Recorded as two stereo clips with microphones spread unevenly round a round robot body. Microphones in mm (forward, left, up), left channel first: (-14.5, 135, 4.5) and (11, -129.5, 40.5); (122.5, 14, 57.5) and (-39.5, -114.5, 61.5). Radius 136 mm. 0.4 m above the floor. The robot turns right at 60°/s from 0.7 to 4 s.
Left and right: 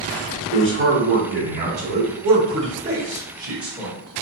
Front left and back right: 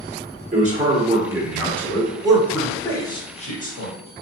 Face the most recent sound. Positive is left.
turn(degrees=30)